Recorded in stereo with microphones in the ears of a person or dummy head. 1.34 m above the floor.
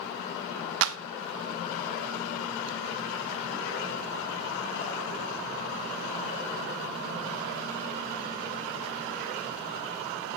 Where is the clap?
75° right (ahead or behind), 0.8 m.